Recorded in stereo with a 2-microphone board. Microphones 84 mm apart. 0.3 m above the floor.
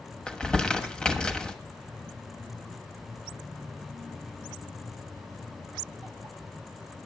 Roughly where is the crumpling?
Centre.